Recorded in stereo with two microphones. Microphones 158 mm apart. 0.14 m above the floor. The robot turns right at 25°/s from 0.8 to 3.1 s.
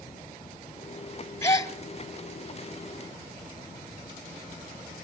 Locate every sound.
1.4 s a gasp: 15° left (ahead or behind), 1.0 m; by 1.7 s 25° left (ahead or behind), 1.0 m